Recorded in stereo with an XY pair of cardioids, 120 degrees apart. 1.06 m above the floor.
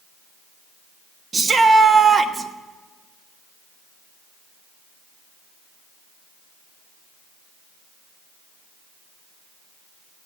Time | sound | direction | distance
1.3 | a shout | 30° right | 1.2 m